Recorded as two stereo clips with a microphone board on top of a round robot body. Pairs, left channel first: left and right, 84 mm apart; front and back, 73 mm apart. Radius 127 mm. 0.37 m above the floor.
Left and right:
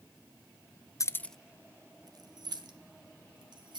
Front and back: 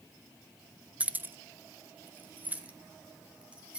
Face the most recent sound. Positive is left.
turn(degrees=-110)